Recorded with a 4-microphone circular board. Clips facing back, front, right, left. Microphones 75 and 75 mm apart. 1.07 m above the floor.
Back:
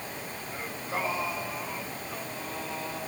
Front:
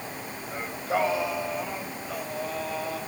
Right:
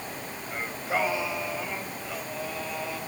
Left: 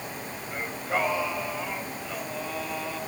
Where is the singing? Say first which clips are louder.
Front 7 dB, even; 5° right, 4 m.